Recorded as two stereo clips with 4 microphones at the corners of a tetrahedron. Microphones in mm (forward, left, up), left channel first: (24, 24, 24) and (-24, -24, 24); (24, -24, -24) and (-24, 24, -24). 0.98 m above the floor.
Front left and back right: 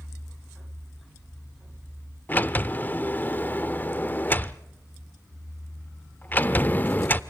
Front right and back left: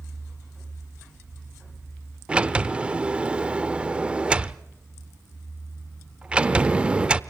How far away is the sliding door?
About 0.7 m.